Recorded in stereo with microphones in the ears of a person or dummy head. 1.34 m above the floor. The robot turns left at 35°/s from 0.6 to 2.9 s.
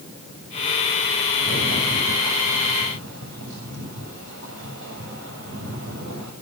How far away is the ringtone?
I don't hear a ringtone.